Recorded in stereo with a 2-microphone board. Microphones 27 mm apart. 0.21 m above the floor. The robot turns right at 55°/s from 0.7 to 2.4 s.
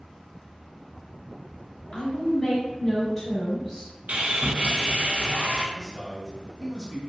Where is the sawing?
60° right (ahead or behind), 0.5 m.